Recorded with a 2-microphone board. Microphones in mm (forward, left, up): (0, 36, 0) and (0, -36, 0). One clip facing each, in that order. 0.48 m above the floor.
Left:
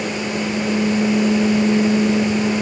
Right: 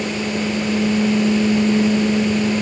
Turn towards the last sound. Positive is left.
No sound to turn to.